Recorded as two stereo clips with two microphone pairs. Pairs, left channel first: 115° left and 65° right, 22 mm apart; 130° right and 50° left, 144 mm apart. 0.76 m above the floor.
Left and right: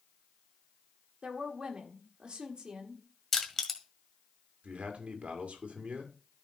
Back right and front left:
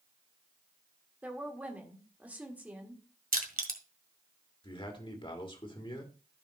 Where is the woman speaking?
25° right, 1.6 m.